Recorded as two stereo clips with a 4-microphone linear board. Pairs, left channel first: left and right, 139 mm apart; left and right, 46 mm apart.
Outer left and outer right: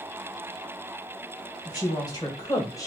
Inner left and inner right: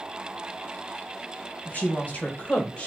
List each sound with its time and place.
1.6 s a woman speaking: 30° left (ahead or behind), 2.5 m; by 2.9 s 25° left (ahead or behind), 1.5 m